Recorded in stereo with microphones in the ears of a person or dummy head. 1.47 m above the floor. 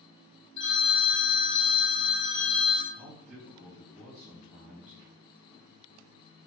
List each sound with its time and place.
0.6 s a phone ringing: 55° left (ahead or behind), 1.2 m
2.9 s a man speaking: 15° right (ahead or behind), 1.8 m